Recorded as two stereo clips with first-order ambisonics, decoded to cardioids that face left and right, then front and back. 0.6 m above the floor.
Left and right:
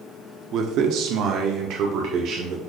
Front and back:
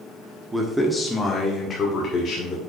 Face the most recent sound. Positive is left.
turn(degrees=-55)